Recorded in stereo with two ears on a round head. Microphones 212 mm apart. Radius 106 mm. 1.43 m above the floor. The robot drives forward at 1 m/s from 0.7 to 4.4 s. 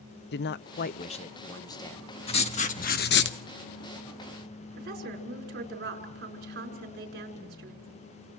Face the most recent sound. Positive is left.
turn(degrees=-45)  # may be behind; listen again after turning